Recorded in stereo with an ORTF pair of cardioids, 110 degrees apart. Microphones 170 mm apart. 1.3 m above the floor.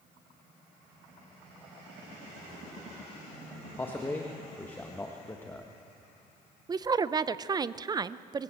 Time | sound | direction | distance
3.8 | a man speaking | 10° left | 1.4 m
6.7 | a woman speaking | 25° right | 0.6 m